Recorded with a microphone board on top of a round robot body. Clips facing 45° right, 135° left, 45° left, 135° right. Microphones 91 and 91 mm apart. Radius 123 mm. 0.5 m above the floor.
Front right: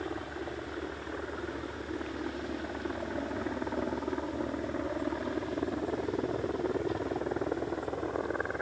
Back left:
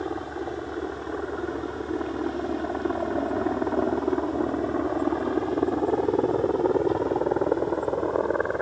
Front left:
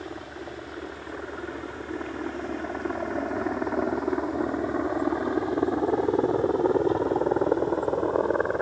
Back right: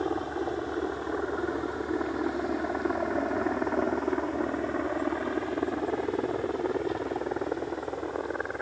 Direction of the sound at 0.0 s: 175° right.